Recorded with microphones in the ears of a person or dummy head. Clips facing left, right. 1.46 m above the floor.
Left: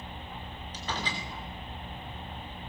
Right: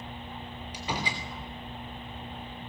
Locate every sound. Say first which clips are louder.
0.7 s a door slam: right 2 dB; 10° right (ahead or behind), 3 m